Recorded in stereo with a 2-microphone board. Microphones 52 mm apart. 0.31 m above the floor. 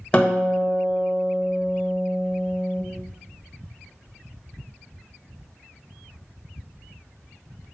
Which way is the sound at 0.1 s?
20° left (ahead or behind).